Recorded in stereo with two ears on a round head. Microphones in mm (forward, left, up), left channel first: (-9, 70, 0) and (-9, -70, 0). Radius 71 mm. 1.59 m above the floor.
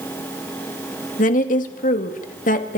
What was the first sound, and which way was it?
A woman speaking, 55° left (ahead or behind).